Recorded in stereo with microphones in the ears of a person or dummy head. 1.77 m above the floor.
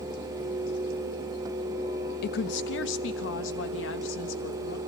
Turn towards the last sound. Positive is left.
turn(degrees=85)